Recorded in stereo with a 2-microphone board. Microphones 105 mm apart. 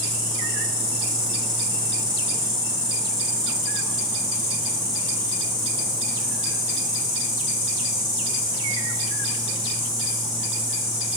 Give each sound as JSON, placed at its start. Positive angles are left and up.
{"t": 0.0, "sound": "an insect", "side_deg": -50, "distance_m": 2.5}